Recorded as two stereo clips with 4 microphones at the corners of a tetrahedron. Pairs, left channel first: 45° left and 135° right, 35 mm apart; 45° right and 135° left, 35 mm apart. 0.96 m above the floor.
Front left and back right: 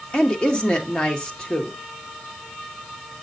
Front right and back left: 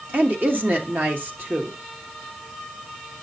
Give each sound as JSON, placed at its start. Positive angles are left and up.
{"t": 0.1, "sound": "a woman speaking", "azimuth_deg": 110, "distance_m": 1.8}